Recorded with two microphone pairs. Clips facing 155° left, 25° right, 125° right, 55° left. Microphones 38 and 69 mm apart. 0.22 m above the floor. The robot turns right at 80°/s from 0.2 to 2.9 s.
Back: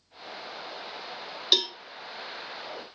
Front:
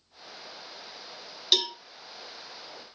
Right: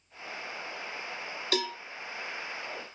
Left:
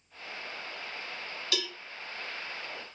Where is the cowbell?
125° right, 0.7 m; by 1.8 s 105° right, 0.7 m.